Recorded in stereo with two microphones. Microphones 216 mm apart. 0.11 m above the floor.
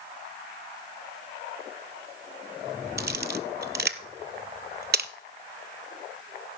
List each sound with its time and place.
3.0 s a camera shutter: 55° right (ahead or behind), 0.6 m